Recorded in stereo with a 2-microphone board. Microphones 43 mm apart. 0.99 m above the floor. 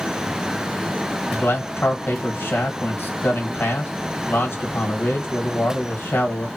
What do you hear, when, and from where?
1.3 s a man speaking: 50° left (ahead or behind), 1.4 m